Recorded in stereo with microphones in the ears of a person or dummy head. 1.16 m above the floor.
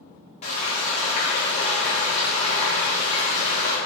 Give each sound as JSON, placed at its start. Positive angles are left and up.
{"t": 0.4, "sound": "frying", "side_deg": 40, "distance_m": 0.6}